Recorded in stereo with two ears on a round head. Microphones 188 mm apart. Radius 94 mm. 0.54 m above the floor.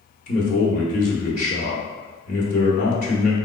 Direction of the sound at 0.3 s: 40° left (ahead or behind).